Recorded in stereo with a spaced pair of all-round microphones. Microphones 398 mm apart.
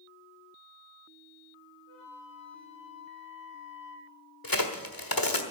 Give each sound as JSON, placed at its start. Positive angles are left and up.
{"t": 1.9, "sound": "a flute", "side_deg": -35, "distance_m": 4.0}
{"t": 4.4, "sound": "a crack", "side_deg": 55, "distance_m": 1.5}